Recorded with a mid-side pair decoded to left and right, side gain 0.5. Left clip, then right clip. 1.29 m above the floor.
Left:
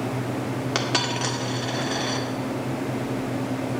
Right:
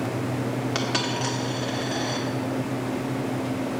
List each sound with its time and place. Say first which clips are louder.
0.8 s a dropped coin: left 3 dB; 25° left, 1.7 m